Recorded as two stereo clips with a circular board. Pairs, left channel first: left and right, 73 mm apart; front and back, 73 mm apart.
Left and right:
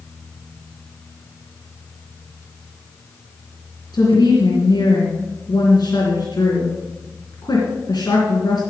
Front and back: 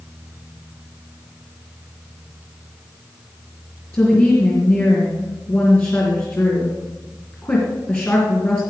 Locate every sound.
3.9 s a woman speaking: 60° left, 3 m